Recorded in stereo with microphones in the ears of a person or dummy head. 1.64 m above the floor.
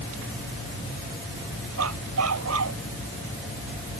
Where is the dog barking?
85° right.